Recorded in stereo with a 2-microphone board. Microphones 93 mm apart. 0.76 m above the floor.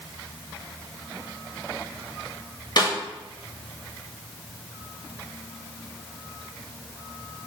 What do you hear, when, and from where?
2.8 s a snare drum: 50° left (ahead or behind), 1.5 m